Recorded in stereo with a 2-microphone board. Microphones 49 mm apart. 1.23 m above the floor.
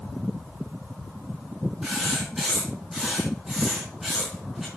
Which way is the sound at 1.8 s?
10° right (ahead or behind).